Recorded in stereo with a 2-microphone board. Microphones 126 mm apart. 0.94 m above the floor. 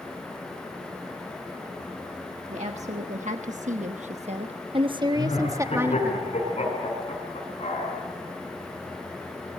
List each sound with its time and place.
2.5 s a woman speaking: 60° right (ahead or behind), 1.4 m; by 6.2 s 15° right (ahead or behind), 1.5 m
5.2 s laughter: 55° left (ahead or behind), 8 m